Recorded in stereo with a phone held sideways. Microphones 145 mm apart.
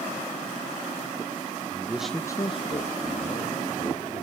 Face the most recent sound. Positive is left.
turn(degrees=70)  # may be behind; listen again after turning